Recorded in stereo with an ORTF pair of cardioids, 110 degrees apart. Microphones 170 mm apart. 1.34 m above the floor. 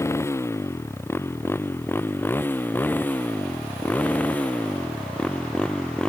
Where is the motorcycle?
15° left; by 6.1 s 5° left.